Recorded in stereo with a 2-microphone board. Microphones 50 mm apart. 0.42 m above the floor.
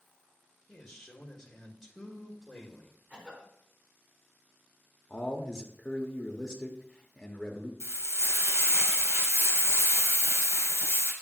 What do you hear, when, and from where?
0.7 s a man speaking: 5° left (ahead or behind), 1.4 m
3.1 s a cough: 25° right (ahead or behind), 4 m
5.1 s a man speaking: 10° left (ahead or behind), 1.1 m
7.8 s frying: 70° right (ahead or behind), 1.6 m